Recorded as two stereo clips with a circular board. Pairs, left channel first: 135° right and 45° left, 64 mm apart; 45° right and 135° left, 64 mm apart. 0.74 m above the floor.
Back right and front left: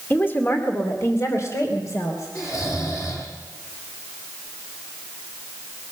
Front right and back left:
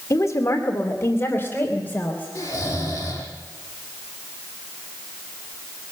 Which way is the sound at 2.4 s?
95° right.